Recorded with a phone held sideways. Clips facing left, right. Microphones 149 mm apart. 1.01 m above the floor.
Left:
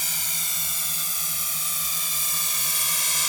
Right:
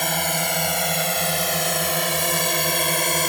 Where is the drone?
70° right (ahead or behind); by 3.3 s 60° right (ahead or behind).